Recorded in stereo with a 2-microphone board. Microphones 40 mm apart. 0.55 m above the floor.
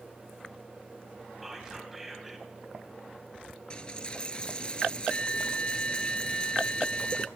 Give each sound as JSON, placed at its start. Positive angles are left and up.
{"t": 1.4, "sound": "whispering", "side_deg": -5, "distance_m": 3.0}
{"t": 3.7, "sound": "a dropped coin", "side_deg": 25, "distance_m": 0.6}